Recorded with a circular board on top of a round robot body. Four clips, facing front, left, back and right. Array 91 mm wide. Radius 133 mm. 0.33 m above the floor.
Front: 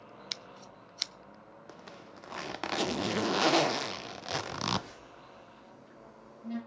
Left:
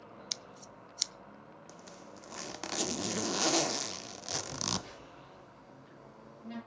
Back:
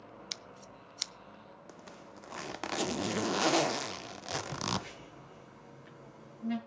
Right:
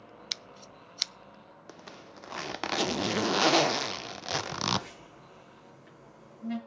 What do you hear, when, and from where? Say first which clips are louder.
0.3 s scissors: right 2 dB, front 1 dB; 75° right, 0.5 m
1.7 s a zipper: right 5 dB, front 2 dB; 75° right, 0.5 m
4.5 s a phone buzzing: right 6 dB, front 2 dB; 145° right, 9 m